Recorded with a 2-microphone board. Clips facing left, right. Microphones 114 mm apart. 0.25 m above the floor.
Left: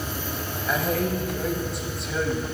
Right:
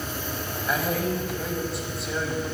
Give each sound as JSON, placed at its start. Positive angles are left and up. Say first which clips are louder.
{"t": 0.7, "sound": "a man speaking", "louder": "left 1 dB", "side_deg": 0, "distance_m": 1.2}